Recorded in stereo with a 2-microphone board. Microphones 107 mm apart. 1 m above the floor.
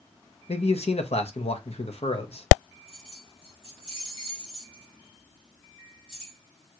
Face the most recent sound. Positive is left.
turn(degrees=60)  # may be behind; listen again after turning